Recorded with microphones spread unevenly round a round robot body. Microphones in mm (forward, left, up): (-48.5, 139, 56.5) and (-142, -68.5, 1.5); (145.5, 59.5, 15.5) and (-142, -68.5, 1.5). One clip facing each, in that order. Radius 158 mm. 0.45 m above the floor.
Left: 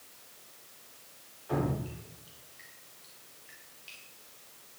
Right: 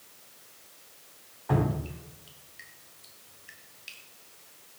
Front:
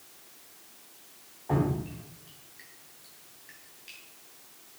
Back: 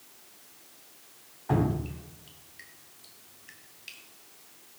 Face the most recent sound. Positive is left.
turn(degrees=-95)